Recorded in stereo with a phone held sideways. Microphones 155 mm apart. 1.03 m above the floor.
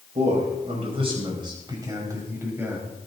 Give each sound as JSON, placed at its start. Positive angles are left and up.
{"t": 0.1, "sound": "a man speaking", "side_deg": -50, "distance_m": 5.5}